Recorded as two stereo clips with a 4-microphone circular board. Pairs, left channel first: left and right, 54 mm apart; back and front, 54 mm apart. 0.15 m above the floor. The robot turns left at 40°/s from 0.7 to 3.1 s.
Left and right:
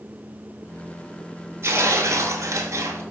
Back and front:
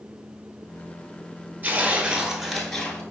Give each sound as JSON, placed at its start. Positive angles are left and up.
{"t": 1.6, "sound": "tearing paper", "azimuth_deg": -55, "distance_m": 0.6}